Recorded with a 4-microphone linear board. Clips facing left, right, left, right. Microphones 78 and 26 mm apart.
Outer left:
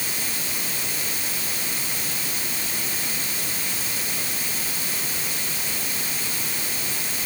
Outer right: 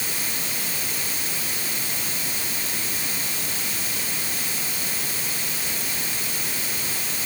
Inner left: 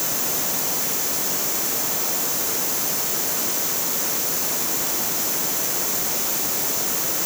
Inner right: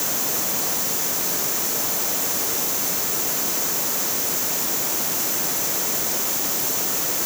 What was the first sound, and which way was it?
Only background noise.